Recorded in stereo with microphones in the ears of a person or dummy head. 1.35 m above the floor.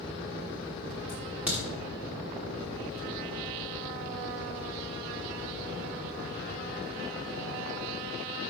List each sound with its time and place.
1.1 s a crack: 5° right (ahead or behind), 1.2 m